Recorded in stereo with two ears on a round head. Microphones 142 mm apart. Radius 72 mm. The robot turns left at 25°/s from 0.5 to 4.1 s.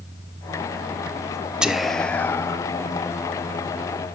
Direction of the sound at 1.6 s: 5° right (ahead or behind).